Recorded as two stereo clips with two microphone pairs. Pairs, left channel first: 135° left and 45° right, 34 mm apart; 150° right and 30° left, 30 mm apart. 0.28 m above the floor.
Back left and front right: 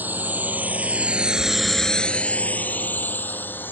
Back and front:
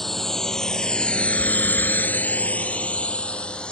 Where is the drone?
70° right; by 3.7 s 150° left.